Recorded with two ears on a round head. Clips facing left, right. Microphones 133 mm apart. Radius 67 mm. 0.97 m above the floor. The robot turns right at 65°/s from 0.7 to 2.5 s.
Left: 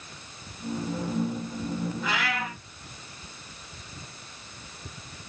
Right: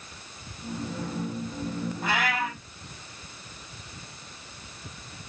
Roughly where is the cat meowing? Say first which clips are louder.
Right 2 dB; ahead right.